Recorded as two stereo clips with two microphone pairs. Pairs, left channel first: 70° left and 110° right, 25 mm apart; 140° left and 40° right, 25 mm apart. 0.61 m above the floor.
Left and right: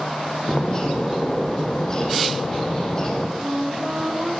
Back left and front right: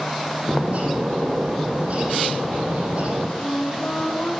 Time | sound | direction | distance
0.5 | a bird | straight ahead | 6 m
3.4 | a flute | straight behind | 4 m